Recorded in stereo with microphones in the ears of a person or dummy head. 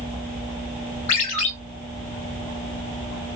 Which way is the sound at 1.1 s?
35° left (ahead or behind).